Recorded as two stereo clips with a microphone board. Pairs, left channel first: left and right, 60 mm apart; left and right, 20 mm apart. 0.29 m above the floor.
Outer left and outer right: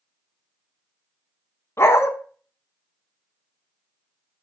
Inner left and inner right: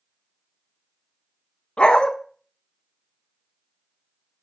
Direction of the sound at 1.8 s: 45° left (ahead or behind).